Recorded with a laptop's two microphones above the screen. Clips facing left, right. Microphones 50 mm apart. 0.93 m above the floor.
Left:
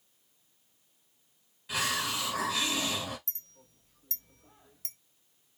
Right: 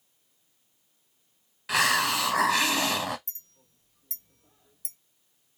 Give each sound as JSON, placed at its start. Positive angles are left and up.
{"t": 1.7, "sound": "a hiss", "side_deg": -70, "distance_m": 0.5}
{"t": 3.3, "sound": "a clink", "side_deg": 55, "distance_m": 0.6}